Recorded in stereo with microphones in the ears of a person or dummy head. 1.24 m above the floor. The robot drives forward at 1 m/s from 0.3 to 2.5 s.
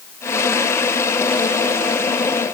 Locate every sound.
Only background noise.